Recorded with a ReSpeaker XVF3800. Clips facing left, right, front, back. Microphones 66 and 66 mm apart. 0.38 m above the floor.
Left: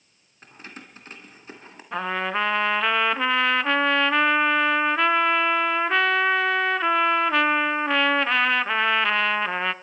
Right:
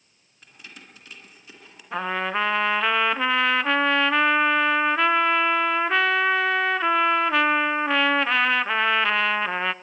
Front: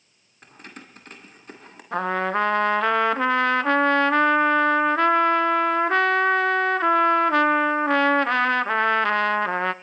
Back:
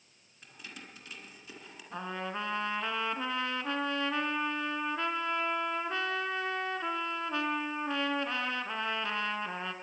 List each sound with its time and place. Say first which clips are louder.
0.4 s keys jangling: left 4 dB, front 5 dB; 40° left, 3 m
1.9 s a trumpet: even, front 14 dB; straight ahead, 0.6 m